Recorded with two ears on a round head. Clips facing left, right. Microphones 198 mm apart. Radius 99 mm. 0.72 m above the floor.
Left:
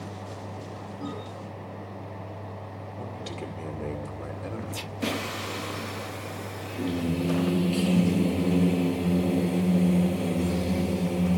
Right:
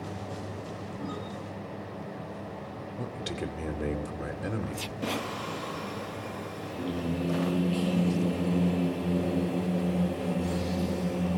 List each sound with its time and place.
3.0 s a man speaking: 20° right (ahead or behind), 2 m
5.0 s singing: 30° left (ahead or behind), 0.9 m